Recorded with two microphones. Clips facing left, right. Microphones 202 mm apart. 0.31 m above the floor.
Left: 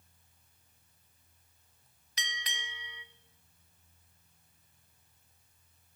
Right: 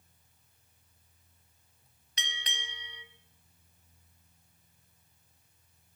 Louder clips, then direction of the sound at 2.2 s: Even; 30° right (ahead or behind).